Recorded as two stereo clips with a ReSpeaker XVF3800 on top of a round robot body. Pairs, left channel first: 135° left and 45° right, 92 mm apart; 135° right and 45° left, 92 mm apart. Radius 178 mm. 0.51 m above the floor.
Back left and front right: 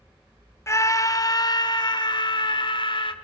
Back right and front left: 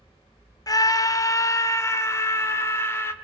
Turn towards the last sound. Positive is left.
turn(degrees=165)